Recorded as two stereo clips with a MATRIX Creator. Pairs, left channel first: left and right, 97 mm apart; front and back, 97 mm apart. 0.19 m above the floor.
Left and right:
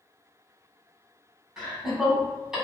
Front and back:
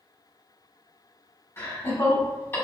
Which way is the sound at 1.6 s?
10° right.